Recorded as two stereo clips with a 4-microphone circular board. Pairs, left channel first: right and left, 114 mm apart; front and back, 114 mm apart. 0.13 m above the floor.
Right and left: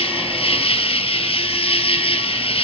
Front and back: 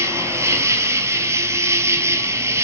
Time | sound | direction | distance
0.0 | an insect | 115° right | 1.0 m